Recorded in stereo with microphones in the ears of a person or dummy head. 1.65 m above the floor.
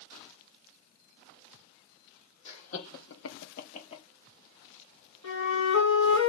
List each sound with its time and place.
2.5 s laughter: 40° left (ahead or behind), 1.3 m; by 4.0 s 25° left (ahead or behind), 0.9 m
5.2 s a flute: 80° left, 1.9 m